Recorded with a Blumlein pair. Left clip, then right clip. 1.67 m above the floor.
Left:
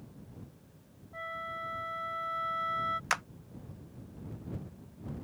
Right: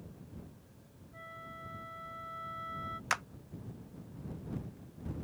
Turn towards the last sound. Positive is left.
turn(degrees=5)